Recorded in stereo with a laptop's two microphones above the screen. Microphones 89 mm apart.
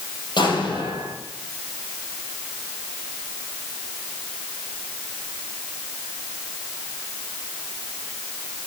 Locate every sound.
0.4 s an explosion: 55° left (ahead or behind), 7 m